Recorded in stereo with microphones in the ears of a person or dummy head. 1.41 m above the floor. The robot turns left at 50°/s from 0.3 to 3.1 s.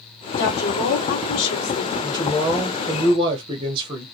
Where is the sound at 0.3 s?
130° left, 3 m; by 1.9 s 50° left, 3 m.